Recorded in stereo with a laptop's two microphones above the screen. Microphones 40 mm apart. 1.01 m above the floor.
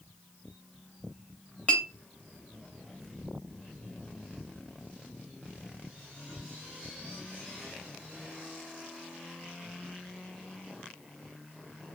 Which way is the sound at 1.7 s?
35° left (ahead or behind).